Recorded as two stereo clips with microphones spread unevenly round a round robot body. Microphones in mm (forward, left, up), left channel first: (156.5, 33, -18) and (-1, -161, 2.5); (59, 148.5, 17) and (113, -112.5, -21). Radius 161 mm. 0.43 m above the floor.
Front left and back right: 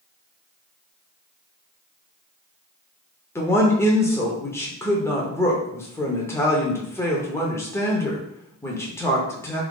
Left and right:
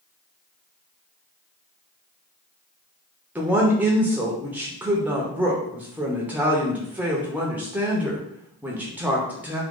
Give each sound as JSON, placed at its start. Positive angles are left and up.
{"t": 3.4, "sound": "a woman speaking", "azimuth_deg": -15, "distance_m": 0.8}